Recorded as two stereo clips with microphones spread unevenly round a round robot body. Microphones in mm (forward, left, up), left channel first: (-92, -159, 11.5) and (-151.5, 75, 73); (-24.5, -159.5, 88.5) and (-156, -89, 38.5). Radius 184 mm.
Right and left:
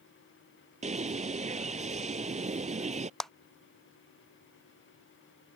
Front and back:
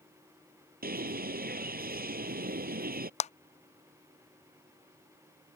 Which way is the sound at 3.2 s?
30° right.